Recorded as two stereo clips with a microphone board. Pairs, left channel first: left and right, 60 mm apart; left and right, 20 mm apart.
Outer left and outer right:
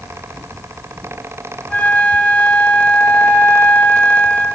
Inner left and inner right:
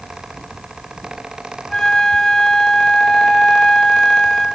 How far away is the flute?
About 3 m.